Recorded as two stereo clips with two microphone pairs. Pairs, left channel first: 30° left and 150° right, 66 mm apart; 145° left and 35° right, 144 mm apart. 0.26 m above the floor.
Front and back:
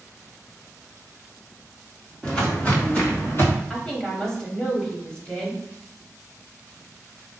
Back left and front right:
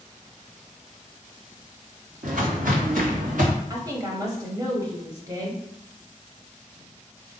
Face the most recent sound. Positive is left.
turn(degrees=-30)